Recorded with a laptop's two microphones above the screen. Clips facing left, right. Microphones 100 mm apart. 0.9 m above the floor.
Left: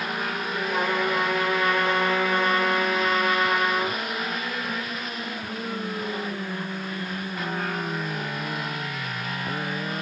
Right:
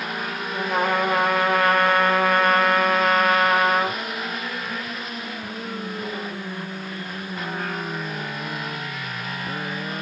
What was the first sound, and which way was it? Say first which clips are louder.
A trumpet: right 4 dB; 55° right (ahead or behind).